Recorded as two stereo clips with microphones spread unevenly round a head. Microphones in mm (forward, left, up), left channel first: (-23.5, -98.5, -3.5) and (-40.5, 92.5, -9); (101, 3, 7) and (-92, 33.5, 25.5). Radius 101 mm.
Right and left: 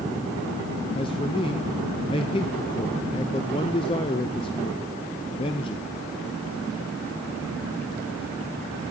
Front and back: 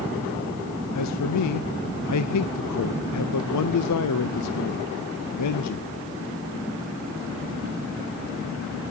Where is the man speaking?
15° right, 0.5 m.